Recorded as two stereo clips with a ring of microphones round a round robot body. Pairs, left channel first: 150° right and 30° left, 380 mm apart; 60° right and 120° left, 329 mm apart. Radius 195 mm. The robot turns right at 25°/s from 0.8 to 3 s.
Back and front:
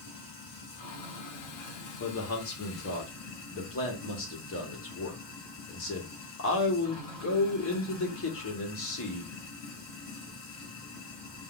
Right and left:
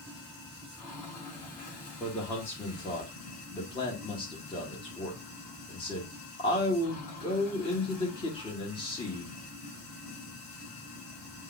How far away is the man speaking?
About 1.4 m.